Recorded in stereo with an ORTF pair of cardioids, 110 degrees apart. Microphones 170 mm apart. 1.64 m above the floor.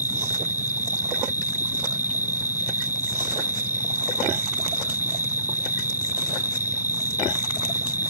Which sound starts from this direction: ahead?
An insect, at 0.0 s.